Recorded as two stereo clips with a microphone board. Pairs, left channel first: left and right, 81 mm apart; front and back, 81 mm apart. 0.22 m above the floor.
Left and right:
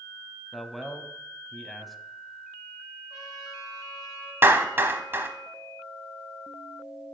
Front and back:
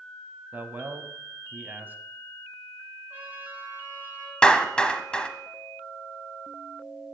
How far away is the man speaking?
About 1.0 m.